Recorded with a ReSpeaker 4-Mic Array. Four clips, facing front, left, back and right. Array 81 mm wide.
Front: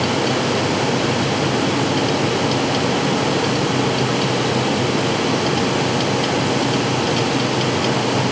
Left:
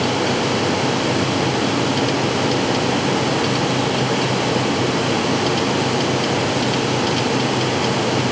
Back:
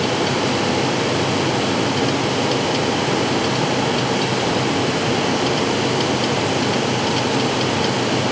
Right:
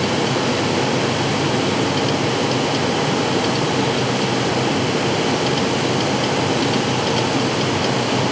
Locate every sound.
Only background noise.